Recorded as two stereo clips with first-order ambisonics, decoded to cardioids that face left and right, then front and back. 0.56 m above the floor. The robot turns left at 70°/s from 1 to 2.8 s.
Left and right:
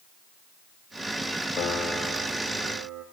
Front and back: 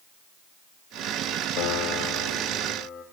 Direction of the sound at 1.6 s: 25° left.